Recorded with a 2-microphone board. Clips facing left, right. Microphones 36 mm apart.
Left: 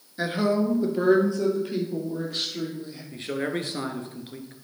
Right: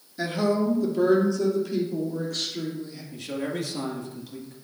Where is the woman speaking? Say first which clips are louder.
Even; 25° left (ahead or behind), 1.9 m; by 3.0 s 30° left (ahead or behind), 5 m.